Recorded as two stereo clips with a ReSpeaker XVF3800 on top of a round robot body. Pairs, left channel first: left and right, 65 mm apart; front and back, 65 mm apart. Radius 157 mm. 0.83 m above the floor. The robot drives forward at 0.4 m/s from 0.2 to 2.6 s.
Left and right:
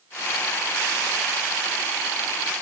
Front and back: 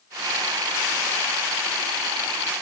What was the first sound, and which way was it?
Only background noise.